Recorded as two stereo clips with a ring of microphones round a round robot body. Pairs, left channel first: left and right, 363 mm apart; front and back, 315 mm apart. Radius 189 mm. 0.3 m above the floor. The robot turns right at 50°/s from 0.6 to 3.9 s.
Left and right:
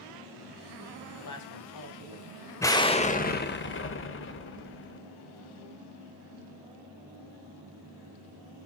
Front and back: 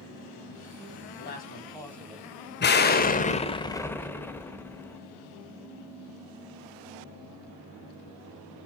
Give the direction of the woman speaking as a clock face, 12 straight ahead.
10 o'clock.